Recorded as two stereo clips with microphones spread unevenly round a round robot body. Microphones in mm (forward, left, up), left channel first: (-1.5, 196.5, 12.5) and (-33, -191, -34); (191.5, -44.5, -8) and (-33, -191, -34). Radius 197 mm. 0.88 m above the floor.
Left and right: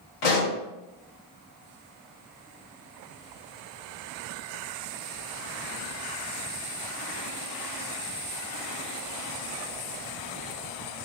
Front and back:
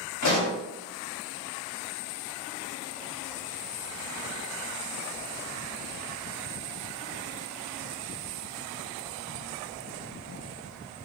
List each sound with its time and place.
0.2 s a pop: 80° left, 1.4 m